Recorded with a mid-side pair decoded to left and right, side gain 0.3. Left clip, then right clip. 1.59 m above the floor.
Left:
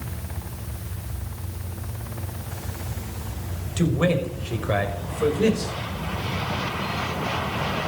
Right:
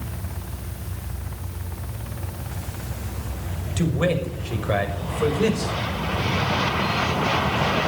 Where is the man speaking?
5° right, 6.5 m; by 5.8 s 15° right, 5.5 m.